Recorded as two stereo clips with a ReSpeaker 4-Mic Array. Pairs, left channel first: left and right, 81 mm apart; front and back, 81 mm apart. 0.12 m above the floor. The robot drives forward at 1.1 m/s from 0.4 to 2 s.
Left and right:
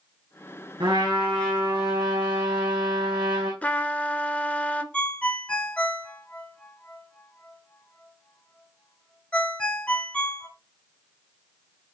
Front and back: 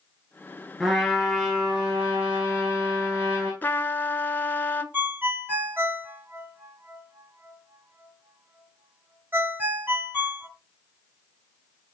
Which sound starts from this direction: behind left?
A ringtone, at 4.9 s.